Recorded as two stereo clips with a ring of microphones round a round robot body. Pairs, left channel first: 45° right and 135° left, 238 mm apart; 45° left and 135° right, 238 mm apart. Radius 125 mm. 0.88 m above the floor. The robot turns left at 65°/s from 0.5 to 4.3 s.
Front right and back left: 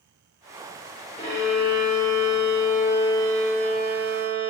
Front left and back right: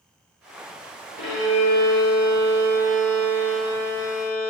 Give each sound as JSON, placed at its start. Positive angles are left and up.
{"t": 1.2, "sound": "a violin", "azimuth_deg": 15, "distance_m": 2.5}